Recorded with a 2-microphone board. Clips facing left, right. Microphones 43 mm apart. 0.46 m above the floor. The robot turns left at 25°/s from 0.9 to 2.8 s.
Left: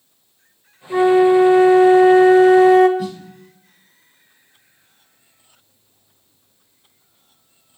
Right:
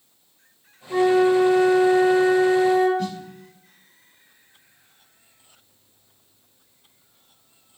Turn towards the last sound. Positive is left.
turn(degrees=10)  # may be behind; listen again after turning